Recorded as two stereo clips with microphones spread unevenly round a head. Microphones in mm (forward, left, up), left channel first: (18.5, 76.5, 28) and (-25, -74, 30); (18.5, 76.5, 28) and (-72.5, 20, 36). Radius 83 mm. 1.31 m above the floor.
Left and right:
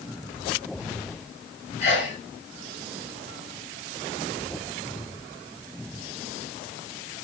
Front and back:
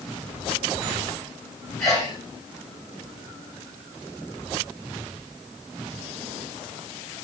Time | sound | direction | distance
1.8 | a sneeze | 120° left | 8 m